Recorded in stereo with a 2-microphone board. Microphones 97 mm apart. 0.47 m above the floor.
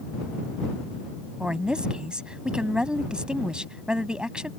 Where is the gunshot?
I don't hear a gunshot.